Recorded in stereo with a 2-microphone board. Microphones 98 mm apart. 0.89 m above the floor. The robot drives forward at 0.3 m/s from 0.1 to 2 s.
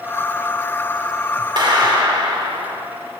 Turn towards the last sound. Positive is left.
turn(degrees=-55)  # may be behind; listen again after turning